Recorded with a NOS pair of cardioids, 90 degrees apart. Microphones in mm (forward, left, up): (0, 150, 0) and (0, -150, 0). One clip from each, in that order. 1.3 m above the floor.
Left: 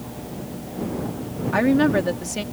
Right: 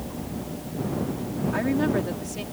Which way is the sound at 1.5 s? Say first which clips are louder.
Left 7 dB; 55° left.